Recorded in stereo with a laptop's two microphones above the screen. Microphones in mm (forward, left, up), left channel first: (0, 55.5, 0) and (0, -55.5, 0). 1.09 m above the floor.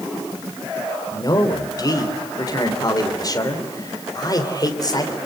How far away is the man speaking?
About 3.5 m.